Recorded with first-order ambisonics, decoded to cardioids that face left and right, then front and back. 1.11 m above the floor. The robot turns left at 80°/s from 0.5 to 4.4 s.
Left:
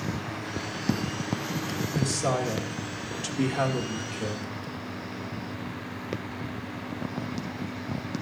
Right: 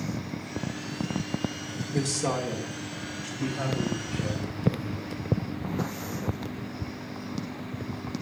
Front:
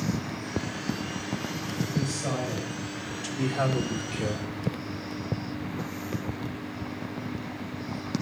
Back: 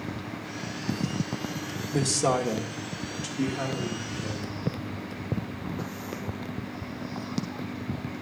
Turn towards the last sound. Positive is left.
turn(degrees=15)